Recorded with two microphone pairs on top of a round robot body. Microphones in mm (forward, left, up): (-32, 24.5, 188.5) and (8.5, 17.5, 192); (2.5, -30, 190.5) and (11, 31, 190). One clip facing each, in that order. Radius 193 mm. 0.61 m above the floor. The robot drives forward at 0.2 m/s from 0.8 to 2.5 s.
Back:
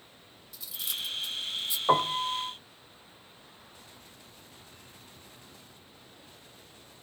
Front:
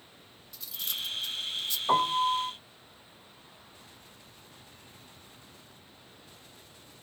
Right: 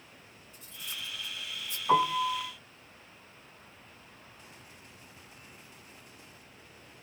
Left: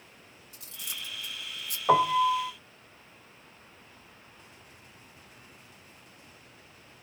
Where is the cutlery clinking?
85° left, 0.9 m; by 1.8 s 100° left, 0.9 m.